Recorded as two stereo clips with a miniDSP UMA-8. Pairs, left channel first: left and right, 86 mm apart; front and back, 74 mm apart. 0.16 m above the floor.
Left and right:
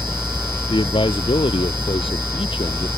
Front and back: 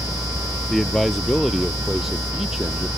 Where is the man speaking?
90° left; by 2.9 s 100° left.